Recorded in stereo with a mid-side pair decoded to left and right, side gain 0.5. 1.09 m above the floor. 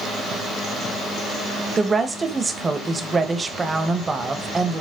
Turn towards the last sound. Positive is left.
turn(degrees=-30)